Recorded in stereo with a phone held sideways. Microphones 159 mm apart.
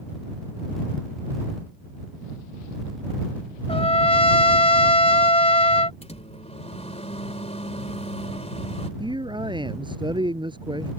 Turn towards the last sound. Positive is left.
turn(degrees=-30)  # may be behind; listen again after turning